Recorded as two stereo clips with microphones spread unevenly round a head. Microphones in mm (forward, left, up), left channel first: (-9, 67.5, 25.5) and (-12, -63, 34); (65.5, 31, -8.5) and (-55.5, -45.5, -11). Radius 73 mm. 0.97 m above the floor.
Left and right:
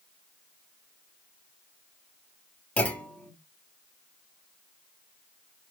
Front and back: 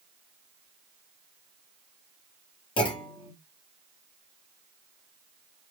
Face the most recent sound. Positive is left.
turn(degrees=25)